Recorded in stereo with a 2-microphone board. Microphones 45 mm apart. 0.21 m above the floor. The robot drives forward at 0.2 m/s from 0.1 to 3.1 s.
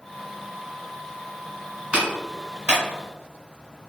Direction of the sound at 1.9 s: 25° right (ahead or behind).